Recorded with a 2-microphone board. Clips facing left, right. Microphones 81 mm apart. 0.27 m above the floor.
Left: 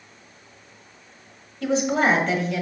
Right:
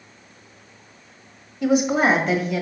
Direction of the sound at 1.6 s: 10° right (ahead or behind).